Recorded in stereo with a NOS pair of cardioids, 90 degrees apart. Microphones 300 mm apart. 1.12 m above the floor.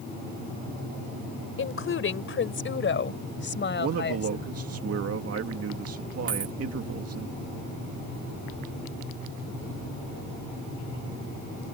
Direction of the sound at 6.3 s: 45° right.